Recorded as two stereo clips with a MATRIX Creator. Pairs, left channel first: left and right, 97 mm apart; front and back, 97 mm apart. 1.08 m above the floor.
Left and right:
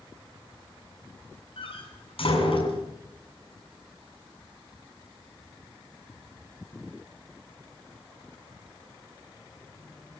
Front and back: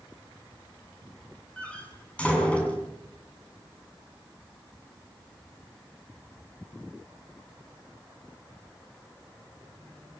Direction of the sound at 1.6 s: 75° left.